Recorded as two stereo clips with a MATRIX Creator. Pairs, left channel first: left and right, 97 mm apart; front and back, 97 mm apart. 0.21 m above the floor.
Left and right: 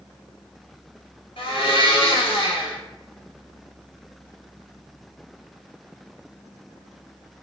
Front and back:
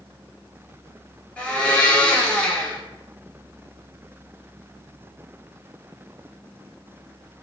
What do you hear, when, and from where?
1.4 s a blender: 75° left, 0.9 m